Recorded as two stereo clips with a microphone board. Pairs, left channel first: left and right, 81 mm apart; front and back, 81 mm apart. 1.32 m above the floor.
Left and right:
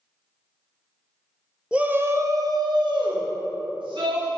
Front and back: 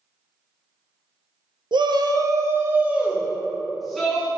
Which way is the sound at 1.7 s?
165° right.